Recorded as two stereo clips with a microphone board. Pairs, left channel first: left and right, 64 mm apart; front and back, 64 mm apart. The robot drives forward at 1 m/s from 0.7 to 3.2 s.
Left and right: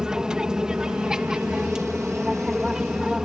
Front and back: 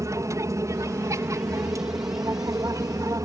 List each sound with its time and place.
0.0 s an aircraft: 165° right; by 3.3 s 170° right